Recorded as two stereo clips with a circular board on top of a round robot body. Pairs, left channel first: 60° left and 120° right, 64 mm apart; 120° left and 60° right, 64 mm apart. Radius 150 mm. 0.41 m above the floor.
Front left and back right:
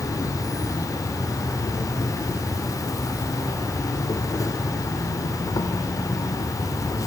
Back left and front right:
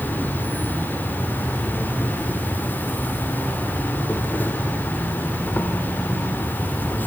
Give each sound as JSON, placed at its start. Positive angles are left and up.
{"t": 0.0, "sound": "an insect", "azimuth_deg": 65, "distance_m": 0.9}